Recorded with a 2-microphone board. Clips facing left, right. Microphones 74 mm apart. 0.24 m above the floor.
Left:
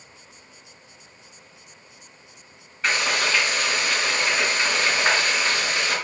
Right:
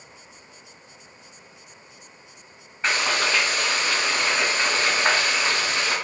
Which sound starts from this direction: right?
Frying, at 2.8 s.